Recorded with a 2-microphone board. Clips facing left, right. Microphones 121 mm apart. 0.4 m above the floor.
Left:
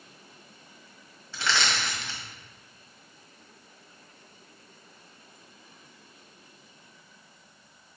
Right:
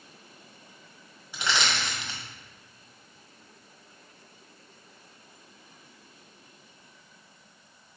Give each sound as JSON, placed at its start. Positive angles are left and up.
{"t": 1.3, "sound": "crushing", "side_deg": -15, "distance_m": 1.8}